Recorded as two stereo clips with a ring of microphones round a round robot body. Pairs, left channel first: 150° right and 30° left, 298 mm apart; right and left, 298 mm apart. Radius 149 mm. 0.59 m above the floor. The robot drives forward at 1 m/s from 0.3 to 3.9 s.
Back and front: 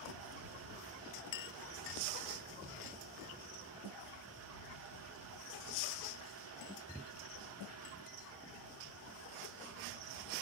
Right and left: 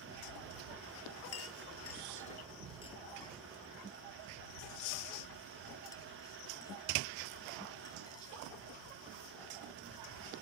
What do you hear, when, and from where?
1.3 s a clink: 130° right; by 8.4 s 170° right